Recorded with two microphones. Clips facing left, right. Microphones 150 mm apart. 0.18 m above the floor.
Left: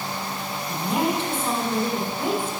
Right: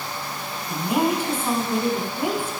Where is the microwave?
No microwave in this recording.